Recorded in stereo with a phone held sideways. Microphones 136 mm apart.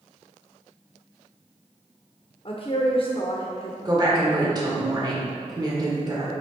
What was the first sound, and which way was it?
A woman speaking, 45° left (ahead or behind).